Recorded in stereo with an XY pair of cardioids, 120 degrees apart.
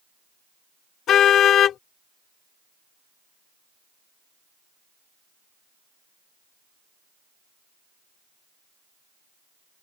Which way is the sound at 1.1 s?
60° left.